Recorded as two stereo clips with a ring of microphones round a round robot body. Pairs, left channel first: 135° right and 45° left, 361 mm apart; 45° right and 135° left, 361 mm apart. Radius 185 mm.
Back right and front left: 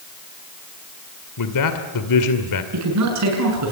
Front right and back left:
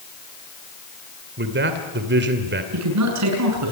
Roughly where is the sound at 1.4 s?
Behind.